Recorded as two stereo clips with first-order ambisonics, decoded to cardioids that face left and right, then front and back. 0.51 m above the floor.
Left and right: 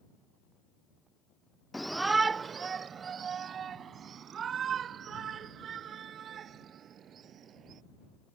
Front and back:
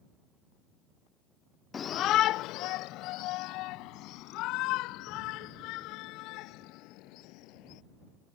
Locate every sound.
1.7 s a shout: 15° left; by 7.8 s 30° right